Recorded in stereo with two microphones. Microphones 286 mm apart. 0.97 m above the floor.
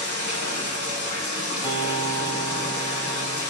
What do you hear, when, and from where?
0.0 s running water: 70° left (ahead or behind), 1.8 m
1.6 s a guitar: 20° left (ahead or behind), 1.2 m